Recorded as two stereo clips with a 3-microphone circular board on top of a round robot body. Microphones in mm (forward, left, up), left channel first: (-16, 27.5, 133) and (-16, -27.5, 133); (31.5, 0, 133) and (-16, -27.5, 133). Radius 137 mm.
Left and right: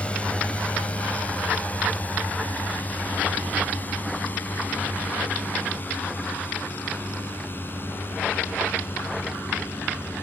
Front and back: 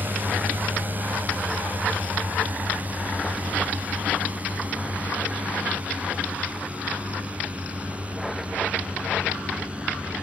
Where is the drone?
160° left; by 10.2 s 140° left.